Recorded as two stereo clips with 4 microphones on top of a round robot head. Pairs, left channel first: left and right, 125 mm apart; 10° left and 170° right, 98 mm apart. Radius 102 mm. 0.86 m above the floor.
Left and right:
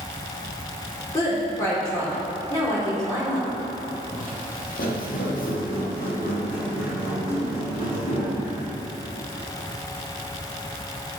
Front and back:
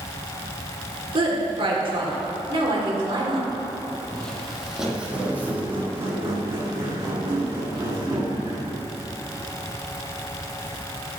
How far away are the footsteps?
About 1.1 m.